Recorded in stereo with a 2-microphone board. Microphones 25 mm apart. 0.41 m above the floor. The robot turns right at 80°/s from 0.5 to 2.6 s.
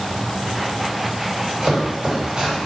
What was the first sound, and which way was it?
Chopping, 35° right (ahead or behind).